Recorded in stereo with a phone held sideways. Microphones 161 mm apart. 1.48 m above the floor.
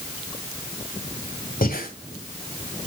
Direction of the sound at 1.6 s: 65° left (ahead or behind).